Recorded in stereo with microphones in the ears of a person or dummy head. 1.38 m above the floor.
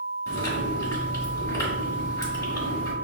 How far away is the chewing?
About 1.9 m.